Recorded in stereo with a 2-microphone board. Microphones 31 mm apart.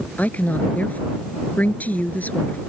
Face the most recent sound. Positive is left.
turn(degrees=70)  # may be behind; listen again after turning